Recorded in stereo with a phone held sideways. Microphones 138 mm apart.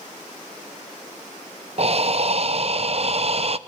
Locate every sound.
1.8 s breathing: 50° right (ahead or behind), 0.8 m